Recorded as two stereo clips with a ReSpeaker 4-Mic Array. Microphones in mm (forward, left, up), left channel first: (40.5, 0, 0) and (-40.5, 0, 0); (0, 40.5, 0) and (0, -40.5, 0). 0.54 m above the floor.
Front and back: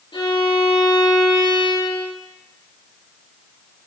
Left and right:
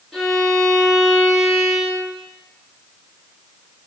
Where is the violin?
Straight ahead, 2 m.